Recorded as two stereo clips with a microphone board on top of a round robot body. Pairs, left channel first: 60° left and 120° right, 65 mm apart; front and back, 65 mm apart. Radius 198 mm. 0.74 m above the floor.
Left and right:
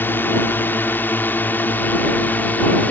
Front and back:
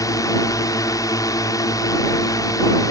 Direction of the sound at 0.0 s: 5° left.